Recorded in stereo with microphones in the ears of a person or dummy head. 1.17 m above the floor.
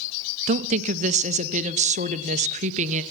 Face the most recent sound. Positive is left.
turn(degrees=-40)  # may be behind; listen again after turning